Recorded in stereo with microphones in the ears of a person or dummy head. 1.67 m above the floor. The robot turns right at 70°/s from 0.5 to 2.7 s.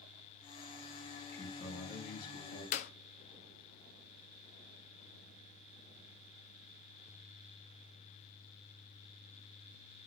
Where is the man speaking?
10° left, 4 m; by 2.6 s 100° left, 4 m.